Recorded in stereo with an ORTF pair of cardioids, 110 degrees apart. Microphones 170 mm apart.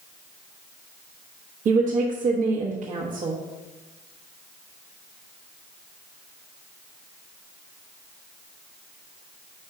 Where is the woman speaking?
50° right, 1.3 m.